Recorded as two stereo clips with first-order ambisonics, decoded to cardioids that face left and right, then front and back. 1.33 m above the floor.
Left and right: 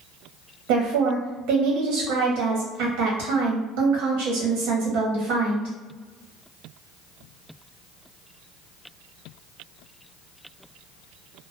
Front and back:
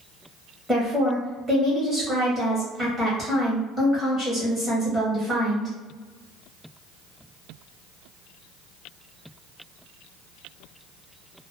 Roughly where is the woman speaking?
Right.